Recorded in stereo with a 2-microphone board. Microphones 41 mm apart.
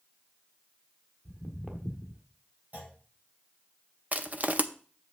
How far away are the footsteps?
About 1.3 m.